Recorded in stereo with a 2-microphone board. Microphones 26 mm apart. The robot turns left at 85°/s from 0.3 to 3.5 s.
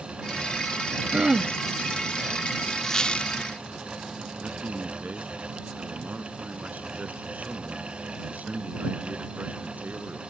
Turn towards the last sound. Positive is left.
turn(degrees=-80)